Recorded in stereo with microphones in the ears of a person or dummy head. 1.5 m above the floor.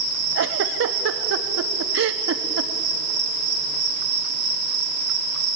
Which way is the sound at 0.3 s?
65° right (ahead or behind).